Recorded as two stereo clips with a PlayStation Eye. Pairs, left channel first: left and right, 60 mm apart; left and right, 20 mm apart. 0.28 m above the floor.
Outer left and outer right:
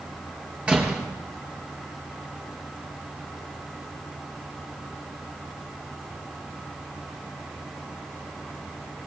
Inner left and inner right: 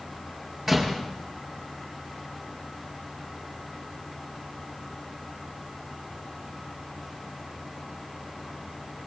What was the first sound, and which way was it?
A door slam, 20° right (ahead or behind).